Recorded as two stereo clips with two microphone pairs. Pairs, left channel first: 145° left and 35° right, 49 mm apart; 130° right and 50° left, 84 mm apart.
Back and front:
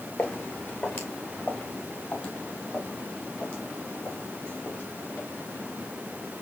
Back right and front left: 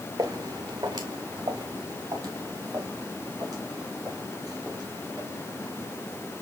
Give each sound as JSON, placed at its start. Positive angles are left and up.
{"t": 0.2, "sound": "footsteps", "azimuth_deg": 95, "distance_m": 1.9}